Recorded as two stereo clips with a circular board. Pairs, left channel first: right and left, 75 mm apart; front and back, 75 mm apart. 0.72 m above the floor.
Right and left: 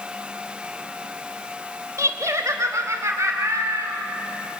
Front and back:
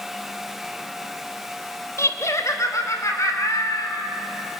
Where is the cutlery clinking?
I don't hear cutlery clinking.